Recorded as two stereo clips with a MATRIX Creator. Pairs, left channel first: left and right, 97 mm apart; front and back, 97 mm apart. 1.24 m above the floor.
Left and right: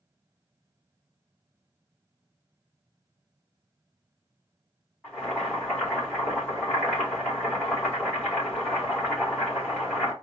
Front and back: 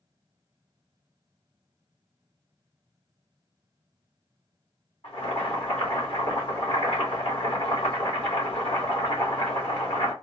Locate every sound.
5.0 s boiling: 15° left, 2.5 m